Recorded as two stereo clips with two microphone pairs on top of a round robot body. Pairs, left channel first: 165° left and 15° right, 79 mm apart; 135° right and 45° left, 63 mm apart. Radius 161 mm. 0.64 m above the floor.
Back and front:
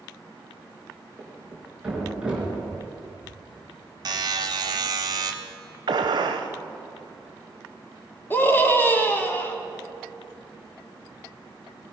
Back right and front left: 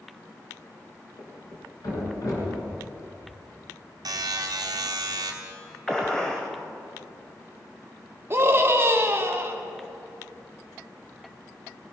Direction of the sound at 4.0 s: 25° left.